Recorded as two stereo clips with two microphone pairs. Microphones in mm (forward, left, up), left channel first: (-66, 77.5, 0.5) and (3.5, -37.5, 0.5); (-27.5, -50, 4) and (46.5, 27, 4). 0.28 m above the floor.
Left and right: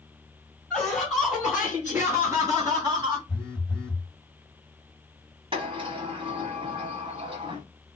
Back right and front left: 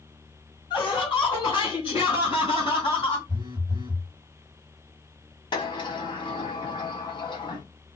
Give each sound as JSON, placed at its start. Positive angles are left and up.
{"t": 0.7, "sound": "laughter", "azimuth_deg": -155, "distance_m": 1.8}
{"t": 3.3, "sound": "a phone buzzing", "azimuth_deg": 45, "distance_m": 0.7}
{"t": 5.5, "sound": "a sliding door", "azimuth_deg": -105, "distance_m": 1.3}